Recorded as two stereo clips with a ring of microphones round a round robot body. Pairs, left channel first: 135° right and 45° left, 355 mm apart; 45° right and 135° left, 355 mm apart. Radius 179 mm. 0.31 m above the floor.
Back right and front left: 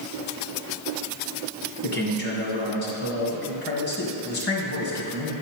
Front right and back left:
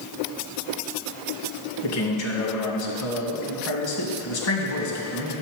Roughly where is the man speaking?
Right.